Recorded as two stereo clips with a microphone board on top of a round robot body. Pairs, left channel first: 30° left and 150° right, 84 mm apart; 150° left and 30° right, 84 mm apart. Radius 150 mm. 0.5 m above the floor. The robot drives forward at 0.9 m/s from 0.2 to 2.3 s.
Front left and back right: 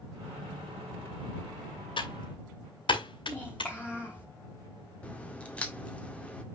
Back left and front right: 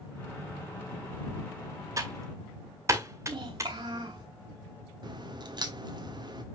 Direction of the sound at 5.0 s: 45° right.